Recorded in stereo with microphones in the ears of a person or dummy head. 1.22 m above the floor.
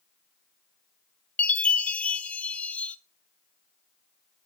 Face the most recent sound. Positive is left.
turn(degrees=5)  # may be behind; listen again after turning